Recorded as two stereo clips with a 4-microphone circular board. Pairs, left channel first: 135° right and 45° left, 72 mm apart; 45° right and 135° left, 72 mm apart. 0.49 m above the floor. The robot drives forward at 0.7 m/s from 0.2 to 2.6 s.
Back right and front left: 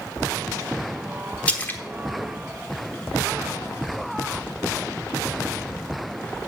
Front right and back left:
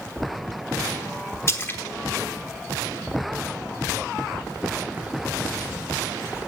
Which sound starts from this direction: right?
A splash, at 1.5 s.